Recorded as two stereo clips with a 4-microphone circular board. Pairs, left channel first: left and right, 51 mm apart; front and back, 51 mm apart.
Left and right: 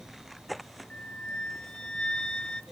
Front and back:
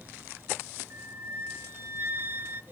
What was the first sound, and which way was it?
A flute, 160° left.